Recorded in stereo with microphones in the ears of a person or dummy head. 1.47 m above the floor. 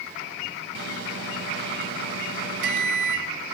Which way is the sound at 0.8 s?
80° right.